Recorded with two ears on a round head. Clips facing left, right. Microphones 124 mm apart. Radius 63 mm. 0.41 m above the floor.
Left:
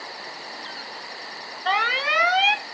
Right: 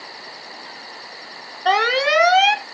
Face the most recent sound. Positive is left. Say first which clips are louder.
# right 7 dB
turn(degrees=-55)  # may be behind; listen again after turning